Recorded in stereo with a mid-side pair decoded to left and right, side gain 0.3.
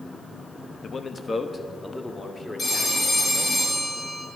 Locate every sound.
0.8 s a man speaking: 65° left, 0.9 m; by 3.6 s 15° left, 4 m
2.6 s a phone ringing: 55° left, 5.5 m